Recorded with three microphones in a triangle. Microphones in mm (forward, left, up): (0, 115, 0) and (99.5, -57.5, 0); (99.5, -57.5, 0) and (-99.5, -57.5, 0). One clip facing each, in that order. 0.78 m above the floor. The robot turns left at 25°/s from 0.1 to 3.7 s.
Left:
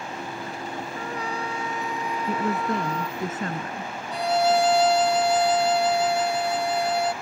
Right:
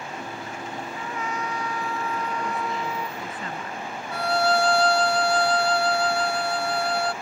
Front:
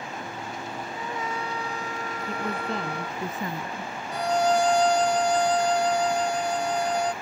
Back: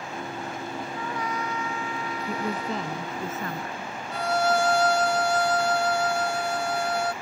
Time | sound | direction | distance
0.9 | a trumpet | 75° left | ?
2.3 | a woman speaking | 105° left | ?
4.1 | a violin | 60° left | ?